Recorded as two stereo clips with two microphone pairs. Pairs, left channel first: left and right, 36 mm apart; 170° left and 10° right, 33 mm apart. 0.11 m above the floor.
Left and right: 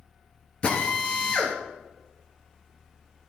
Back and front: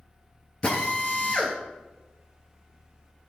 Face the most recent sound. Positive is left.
turn(degrees=140)